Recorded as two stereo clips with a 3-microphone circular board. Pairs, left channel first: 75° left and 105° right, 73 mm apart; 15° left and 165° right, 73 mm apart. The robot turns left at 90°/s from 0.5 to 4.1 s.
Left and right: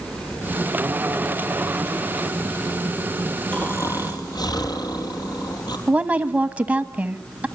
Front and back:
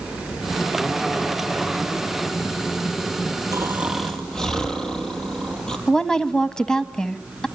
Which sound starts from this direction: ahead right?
A woman speaking, at 5.9 s.